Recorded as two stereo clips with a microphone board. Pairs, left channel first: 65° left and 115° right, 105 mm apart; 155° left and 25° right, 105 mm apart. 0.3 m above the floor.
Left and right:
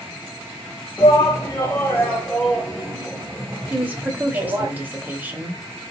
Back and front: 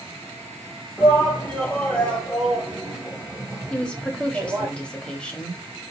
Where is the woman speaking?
145° right, 0.9 m.